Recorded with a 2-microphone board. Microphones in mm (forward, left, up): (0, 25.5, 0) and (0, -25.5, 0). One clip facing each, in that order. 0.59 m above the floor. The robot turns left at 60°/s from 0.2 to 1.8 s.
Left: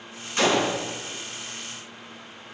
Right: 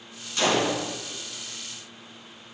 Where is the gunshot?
35° left (ahead or behind), 3.5 m; by 0.8 s 5° left (ahead or behind), 3.5 m.